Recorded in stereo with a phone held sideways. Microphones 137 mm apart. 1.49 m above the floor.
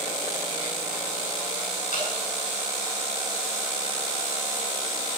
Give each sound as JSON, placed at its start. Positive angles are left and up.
{"t": 1.9, "sound": "dripping", "side_deg": 80, "distance_m": 7.0}